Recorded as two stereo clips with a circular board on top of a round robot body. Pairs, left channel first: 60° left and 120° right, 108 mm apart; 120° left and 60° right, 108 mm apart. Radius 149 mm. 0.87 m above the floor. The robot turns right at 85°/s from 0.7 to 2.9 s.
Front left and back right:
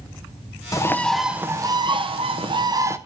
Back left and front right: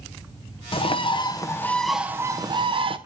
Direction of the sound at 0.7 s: 110° left.